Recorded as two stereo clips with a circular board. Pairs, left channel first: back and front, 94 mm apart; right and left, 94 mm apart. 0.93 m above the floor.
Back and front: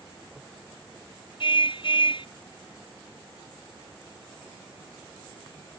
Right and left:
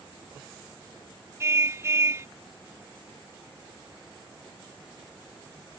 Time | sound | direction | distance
1.4 | a car horn | 150° left | ?